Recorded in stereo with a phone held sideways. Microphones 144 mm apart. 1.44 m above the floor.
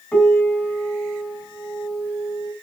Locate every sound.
0.1 s a piano: 10° left (ahead or behind), 3 m